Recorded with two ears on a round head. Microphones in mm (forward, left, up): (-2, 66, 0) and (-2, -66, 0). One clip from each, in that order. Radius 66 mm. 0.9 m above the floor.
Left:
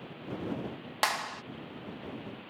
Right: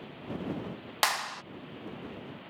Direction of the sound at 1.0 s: 25° right (ahead or behind).